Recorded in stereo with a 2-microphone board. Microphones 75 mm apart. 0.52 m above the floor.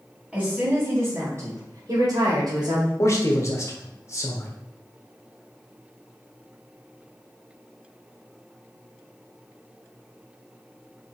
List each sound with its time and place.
0.3 s a woman speaking: 10° right (ahead or behind), 2.5 m; by 2.9 s 65° right (ahead or behind), 2 m
3.0 s a man speaking: 40° left (ahead or behind), 1.1 m